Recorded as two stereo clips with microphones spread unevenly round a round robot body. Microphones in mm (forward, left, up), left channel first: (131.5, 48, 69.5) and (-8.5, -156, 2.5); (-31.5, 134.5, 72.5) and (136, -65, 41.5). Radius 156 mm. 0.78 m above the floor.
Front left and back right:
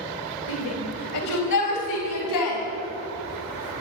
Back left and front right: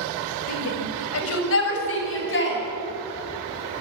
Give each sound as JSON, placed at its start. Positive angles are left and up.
{"t": 0.5, "sound": "a shout", "azimuth_deg": 110, "distance_m": 3.5}